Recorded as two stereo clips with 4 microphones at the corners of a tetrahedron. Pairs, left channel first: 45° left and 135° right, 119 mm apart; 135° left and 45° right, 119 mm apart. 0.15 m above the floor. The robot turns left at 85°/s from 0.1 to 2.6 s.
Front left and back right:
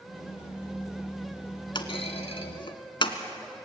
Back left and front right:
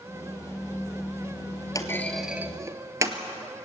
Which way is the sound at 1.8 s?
85° left.